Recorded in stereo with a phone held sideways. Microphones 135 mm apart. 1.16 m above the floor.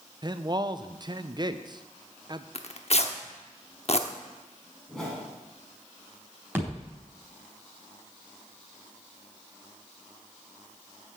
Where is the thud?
15° right (ahead or behind), 4 m.